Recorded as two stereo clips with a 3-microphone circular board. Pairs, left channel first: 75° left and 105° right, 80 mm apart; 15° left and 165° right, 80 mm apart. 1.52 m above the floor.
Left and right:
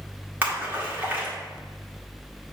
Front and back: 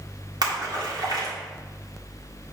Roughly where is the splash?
Behind.